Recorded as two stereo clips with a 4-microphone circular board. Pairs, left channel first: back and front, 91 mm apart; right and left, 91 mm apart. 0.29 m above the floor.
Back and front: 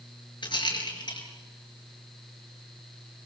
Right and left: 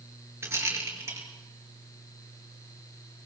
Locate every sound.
0.4 s a rattle: 150° left, 5.5 m